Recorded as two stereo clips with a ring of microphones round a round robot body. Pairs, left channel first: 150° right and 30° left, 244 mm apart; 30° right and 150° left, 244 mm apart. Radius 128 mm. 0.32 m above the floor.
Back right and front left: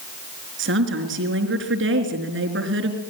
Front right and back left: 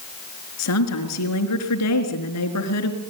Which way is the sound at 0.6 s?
10° right.